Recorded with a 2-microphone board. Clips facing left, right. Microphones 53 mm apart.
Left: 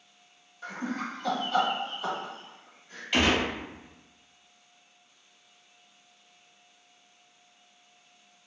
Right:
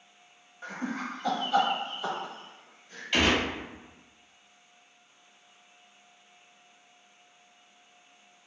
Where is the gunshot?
5° left (ahead or behind), 1.2 m.